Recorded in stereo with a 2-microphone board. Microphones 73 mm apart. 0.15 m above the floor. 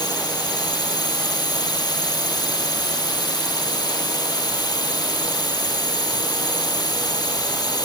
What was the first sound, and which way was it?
A drone, 70° left (ahead or behind).